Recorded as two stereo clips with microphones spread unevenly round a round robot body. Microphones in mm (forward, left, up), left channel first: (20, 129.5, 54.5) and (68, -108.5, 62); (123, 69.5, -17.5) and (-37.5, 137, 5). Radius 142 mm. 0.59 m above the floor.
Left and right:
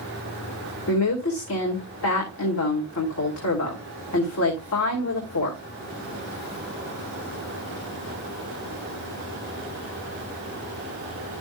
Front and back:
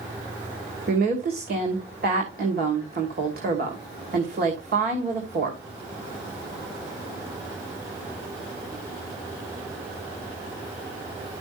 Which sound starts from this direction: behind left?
A woman speaking, at 0.9 s.